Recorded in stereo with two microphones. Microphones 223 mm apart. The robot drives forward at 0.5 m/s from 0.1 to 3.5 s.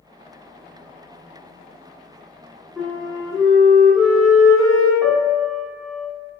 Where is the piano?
10° left (ahead or behind), 0.7 m.